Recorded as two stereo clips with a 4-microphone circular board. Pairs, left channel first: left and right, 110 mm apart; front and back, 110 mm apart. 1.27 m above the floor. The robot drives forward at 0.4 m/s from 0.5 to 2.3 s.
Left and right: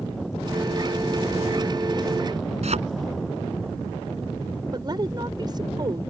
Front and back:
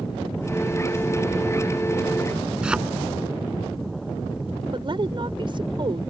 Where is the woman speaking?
140° right.